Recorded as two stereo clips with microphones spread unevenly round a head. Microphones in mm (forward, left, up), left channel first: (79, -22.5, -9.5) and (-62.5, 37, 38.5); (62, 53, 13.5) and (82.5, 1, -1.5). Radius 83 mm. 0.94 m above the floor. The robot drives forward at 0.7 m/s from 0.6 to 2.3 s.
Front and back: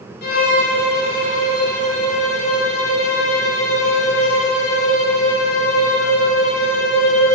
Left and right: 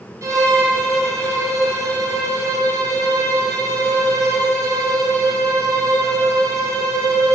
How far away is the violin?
About 3 m.